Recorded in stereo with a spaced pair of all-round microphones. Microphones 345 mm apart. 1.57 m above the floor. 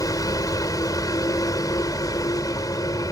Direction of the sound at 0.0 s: 10° left (ahead or behind).